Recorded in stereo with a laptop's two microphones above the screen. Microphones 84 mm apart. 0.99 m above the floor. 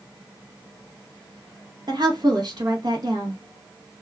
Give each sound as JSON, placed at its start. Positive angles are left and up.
{"t": 1.9, "sound": "a woman speaking", "side_deg": -55, "distance_m": 1.0}